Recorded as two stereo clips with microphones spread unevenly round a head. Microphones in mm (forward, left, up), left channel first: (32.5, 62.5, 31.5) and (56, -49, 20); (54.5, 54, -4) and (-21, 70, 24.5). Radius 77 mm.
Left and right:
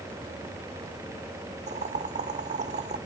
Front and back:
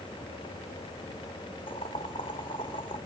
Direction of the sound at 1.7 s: 60° right.